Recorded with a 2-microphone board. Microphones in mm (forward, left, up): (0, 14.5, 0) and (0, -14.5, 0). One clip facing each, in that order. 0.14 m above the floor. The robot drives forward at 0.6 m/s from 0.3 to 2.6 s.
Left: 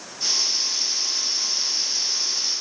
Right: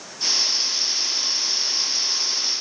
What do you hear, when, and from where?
Only background noise.